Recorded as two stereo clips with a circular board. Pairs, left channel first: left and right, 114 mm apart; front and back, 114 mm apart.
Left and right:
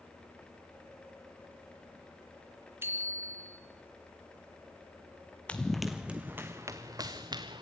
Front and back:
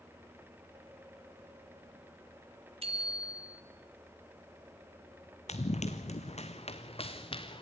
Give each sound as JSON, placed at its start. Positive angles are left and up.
{"t": 2.8, "sound": "a bicycle bell", "azimuth_deg": -155, "distance_m": 2.5}
{"t": 5.5, "sound": "running footsteps", "azimuth_deg": 10, "distance_m": 1.3}